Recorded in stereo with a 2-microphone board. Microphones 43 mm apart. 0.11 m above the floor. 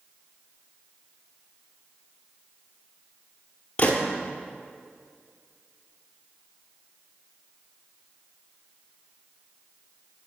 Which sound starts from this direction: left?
A gunshot, at 3.8 s.